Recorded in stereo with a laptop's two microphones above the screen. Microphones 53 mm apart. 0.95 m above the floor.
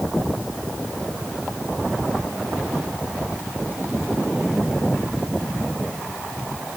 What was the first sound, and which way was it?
Only background noise.